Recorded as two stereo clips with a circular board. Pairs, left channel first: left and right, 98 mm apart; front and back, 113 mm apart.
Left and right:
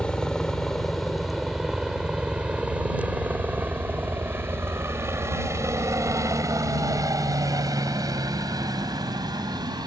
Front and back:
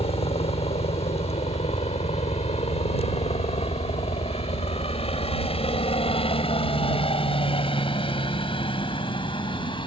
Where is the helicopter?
10° left; by 9.9 s 45° right.